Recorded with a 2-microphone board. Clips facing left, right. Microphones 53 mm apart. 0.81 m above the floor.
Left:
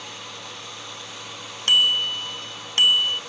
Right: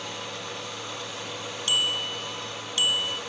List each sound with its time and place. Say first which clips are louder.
1.7 s a bicycle bell: left 7 dB; 55° left (ahead or behind)